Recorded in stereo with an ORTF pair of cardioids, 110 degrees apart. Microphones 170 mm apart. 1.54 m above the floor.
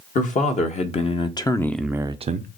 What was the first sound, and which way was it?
A man speaking, 50° left.